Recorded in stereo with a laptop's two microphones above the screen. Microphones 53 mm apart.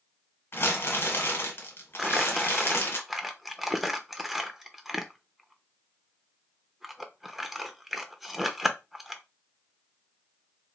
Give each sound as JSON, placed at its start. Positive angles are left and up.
{"t": 0.5, "sound": "crumpling", "side_deg": 45, "distance_m": 1.2}
{"t": 2.0, "sound": "crumpling", "side_deg": -5, "distance_m": 0.6}